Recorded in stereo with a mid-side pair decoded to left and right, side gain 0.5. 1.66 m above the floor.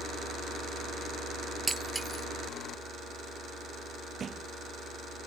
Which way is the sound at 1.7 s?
15° right.